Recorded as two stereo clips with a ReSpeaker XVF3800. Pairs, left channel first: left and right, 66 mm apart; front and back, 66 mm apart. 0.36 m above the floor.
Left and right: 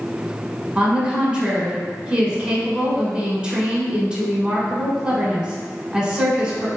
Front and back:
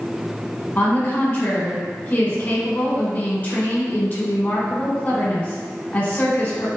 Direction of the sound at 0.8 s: 30° right.